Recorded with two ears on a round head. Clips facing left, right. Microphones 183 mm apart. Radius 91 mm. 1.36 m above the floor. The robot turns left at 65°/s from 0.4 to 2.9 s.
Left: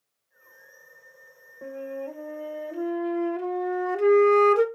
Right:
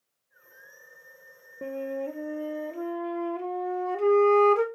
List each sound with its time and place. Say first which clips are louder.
1.6 s a flute: right 2 dB; 120° right, 0.6 m; by 4.7 s 160° left, 0.6 m